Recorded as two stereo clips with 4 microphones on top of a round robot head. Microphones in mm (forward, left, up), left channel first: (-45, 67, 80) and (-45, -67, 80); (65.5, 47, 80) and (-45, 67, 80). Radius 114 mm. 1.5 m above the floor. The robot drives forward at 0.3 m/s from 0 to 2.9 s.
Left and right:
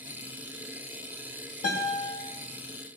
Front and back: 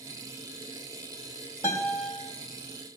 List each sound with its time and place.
1.6 s a guitar: 55° left, 2.5 m; by 2.1 s 60° left, 2.5 m